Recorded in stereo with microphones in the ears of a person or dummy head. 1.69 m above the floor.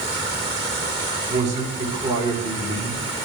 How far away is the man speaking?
About 5.5 m.